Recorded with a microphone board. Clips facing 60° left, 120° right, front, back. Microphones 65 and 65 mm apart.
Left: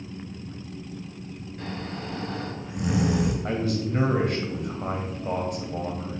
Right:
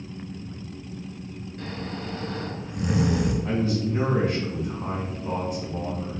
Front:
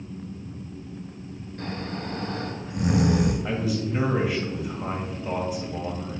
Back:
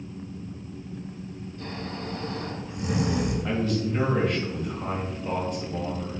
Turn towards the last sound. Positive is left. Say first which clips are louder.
# right 2 dB, back 1 dB
turn(degrees=80)